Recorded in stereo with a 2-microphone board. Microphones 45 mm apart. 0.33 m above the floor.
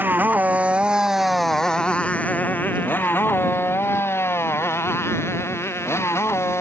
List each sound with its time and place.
0.0 s a motorcycle: 45° right (ahead or behind); by 6.6 s 75° left (ahead or behind)